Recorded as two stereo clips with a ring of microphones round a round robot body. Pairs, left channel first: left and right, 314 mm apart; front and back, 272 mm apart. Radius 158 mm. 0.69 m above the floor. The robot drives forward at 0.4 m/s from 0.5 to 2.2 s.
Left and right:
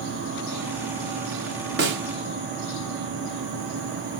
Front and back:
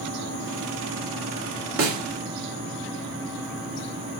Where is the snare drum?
145° right, 2 m.